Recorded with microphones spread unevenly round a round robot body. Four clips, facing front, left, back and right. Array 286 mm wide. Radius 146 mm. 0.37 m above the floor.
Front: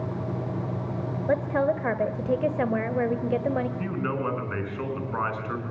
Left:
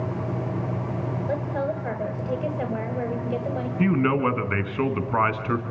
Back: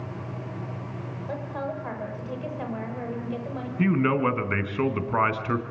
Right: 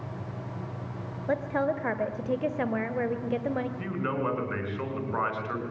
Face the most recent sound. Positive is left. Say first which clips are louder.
# left 9 dB, back 6 dB
turn(degrees=130)